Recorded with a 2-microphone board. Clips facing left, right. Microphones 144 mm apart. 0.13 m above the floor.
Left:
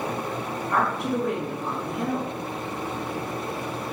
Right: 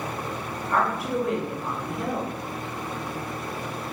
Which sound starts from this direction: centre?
A woman speaking, at 0.7 s.